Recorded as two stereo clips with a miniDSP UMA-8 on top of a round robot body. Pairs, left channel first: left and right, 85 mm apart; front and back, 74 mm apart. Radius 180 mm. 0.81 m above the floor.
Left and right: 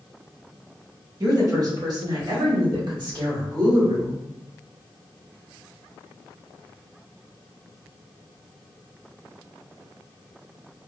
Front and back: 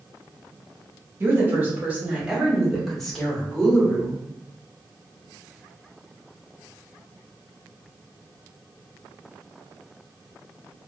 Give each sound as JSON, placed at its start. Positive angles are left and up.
{"t": 1.2, "sound": "a woman speaking", "azimuth_deg": -125, "distance_m": 1.7}